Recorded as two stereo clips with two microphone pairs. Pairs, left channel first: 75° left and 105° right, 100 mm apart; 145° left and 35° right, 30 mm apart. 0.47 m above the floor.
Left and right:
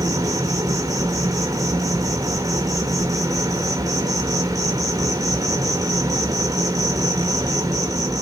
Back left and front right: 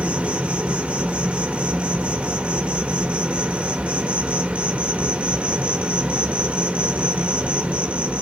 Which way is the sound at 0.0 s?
60° right.